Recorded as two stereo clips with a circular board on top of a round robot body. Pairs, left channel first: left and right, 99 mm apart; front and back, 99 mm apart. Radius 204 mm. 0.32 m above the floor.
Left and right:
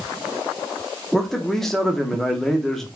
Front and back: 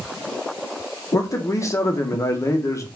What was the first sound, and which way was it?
A man speaking, 10° left.